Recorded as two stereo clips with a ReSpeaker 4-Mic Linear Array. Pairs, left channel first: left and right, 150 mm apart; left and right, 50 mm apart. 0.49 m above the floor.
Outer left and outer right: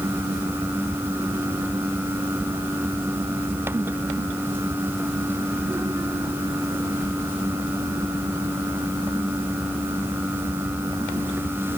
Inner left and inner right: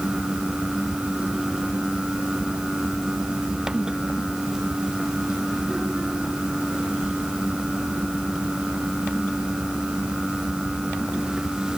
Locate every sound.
Only background noise.